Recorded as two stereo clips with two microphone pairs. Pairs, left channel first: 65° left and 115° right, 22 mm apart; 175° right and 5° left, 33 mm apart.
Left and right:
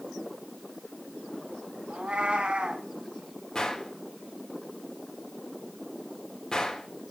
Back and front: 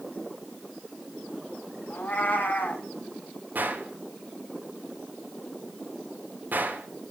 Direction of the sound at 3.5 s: 10° left.